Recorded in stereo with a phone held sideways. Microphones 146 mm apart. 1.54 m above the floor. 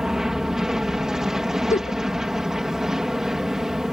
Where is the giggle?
55° left (ahead or behind).